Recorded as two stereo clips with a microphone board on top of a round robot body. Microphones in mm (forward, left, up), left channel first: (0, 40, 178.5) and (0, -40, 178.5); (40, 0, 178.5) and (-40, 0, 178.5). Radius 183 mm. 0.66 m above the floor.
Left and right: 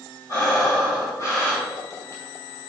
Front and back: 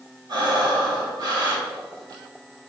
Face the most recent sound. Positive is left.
turn(degrees=140)